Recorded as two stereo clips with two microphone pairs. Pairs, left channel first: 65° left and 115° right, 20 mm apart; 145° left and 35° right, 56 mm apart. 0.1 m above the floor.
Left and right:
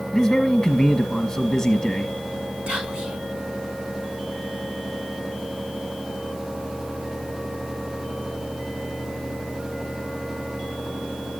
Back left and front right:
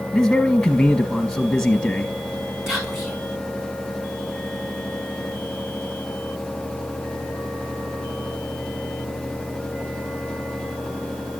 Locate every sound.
0.1 s a man speaking: 80° left, 1.7 m
2.7 s whispering: 115° right, 6 m